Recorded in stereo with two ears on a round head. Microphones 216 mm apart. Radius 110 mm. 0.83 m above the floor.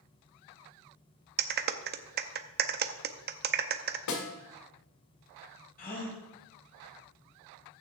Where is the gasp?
40° left (ahead or behind), 4 m.